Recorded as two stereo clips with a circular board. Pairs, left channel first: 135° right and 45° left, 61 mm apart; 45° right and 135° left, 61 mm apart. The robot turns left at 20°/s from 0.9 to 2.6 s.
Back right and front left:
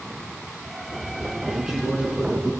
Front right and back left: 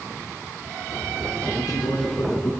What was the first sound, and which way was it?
A man speaking, 35° right.